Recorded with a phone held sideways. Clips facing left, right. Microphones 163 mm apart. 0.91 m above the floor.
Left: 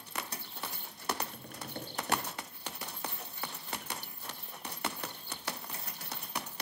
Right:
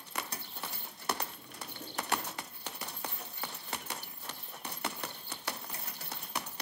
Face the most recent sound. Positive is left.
turn(degrees=55)  # may be behind; listen again after turning